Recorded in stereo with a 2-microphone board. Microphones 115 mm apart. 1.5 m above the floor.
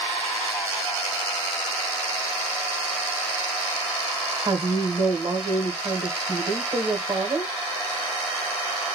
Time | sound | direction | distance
4.5 | a woman speaking | 40° right (ahead or behind) | 1.8 m